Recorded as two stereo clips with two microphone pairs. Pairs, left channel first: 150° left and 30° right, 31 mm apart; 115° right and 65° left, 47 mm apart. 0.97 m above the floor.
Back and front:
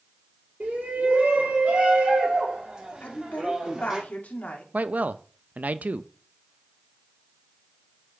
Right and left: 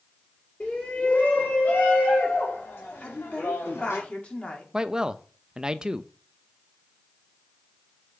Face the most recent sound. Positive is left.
turn(degrees=-5)